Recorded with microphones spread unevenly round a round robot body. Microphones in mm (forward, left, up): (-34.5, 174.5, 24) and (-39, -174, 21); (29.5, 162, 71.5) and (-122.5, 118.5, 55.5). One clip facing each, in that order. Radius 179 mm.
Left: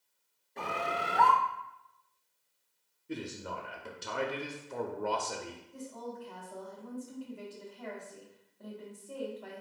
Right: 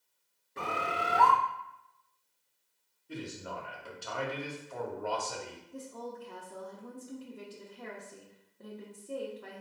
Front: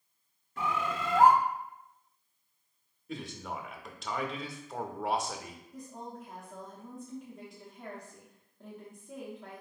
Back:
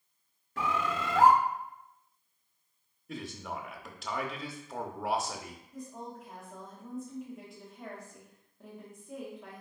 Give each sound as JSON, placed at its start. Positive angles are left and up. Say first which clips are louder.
{"t": 0.6, "sound": "a bird", "louder": "even, back 1 dB", "azimuth_deg": -170, "distance_m": 0.5}
{"t": 3.1, "sound": "a man speaking", "louder": "left 2 dB, even", "azimuth_deg": 120, "distance_m": 0.7}
{"t": 5.7, "sound": "a woman speaking", "louder": "right 1 dB, back 1 dB", "azimuth_deg": -90, "distance_m": 0.9}